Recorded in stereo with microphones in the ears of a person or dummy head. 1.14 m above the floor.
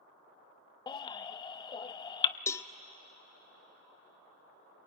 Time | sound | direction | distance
0.9 | a baby crying | 25° left (ahead or behind) | 0.6 m
2.5 | a cowbell | 10° left (ahead or behind) | 0.5 m